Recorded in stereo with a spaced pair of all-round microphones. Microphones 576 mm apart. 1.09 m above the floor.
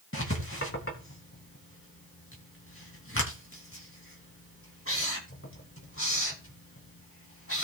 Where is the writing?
20° left (ahead or behind), 2.5 m.